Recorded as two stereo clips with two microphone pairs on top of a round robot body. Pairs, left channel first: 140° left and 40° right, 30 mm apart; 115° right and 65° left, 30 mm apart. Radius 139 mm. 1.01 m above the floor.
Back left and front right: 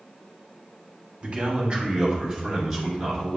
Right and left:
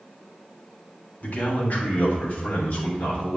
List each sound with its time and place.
1.2 s a man speaking: 95° right, 2.5 m; by 3.4 s 130° right, 3 m